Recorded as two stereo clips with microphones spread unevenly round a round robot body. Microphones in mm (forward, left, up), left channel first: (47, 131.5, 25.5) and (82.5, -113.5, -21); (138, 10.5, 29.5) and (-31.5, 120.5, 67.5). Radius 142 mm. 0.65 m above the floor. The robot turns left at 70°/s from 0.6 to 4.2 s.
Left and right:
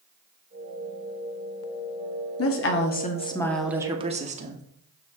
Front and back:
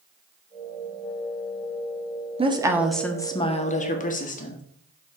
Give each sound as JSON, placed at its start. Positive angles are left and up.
{"t": 2.4, "sound": "a woman speaking", "azimuth_deg": 85, "distance_m": 1.5}